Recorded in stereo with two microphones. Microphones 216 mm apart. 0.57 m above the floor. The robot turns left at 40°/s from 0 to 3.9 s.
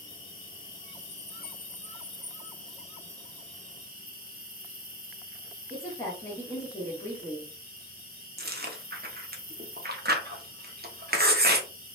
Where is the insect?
110° left, 0.9 m; by 11.9 s 45° right, 0.9 m.